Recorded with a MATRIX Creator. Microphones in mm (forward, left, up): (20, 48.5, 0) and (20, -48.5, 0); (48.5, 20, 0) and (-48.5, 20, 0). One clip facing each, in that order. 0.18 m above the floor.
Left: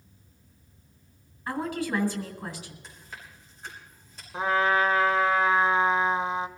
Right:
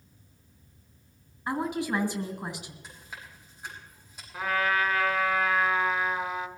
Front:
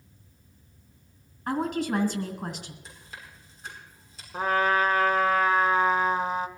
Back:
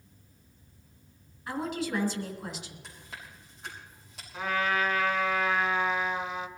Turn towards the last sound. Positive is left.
turn(degrees=35)